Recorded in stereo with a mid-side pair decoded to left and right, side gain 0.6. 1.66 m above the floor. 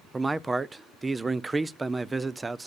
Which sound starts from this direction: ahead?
A man speaking, at 0.1 s.